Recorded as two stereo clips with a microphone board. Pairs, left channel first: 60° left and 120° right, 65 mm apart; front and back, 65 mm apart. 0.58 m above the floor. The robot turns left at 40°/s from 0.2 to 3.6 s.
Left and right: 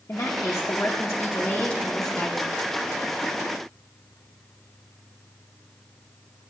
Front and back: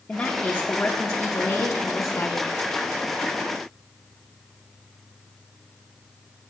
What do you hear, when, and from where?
0.1 s a woman speaking: 70° left, 0.8 m; by 2.5 s 25° right, 0.8 m